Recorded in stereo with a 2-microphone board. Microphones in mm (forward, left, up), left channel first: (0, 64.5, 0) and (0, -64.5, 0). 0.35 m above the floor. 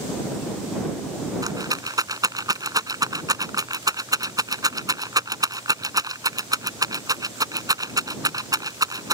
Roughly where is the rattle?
Right.